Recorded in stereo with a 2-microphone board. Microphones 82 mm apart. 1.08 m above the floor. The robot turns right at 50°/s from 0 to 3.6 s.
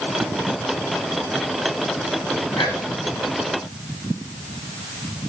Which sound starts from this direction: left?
Whispering, at 2.5 s.